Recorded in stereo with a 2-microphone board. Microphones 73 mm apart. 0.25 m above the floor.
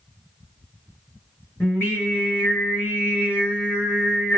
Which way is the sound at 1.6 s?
30° left (ahead or behind).